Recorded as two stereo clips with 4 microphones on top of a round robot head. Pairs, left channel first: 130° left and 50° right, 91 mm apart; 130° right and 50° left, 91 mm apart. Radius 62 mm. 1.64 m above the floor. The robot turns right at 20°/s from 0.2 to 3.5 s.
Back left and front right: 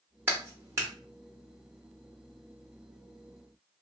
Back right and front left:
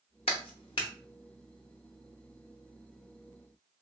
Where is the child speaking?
No child speaking in this recording.